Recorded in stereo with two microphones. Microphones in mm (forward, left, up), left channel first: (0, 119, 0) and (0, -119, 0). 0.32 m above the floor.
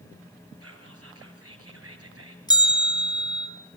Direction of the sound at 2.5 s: 15° left (ahead or behind).